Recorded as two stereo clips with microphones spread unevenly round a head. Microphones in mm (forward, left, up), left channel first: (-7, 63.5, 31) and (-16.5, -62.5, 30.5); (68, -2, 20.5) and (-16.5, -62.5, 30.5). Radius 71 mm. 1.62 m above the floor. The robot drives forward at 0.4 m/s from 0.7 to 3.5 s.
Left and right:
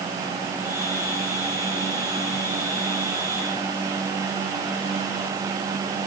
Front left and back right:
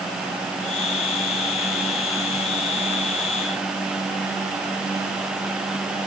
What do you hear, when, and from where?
Only background noise.